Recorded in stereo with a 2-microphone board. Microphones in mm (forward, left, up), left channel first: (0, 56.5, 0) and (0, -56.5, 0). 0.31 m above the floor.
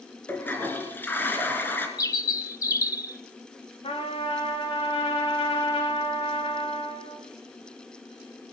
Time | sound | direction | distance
0.3 | a toilet flushing | 20° left (ahead or behind) | 2.5 m
2.0 | a bird | 30° left (ahead or behind) | 0.6 m
3.8 | a trumpet | 65° left (ahead or behind) | 4.5 m